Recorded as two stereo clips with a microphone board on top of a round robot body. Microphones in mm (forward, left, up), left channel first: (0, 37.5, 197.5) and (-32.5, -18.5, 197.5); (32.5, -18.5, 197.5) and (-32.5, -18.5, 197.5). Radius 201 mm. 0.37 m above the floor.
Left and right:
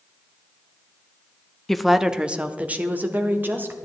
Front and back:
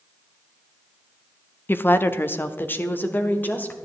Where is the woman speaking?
20° right, 0.9 m; by 3.9 s 60° right, 2.5 m.